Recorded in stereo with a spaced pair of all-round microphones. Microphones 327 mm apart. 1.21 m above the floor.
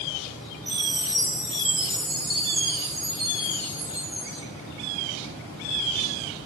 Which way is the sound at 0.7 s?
85° right.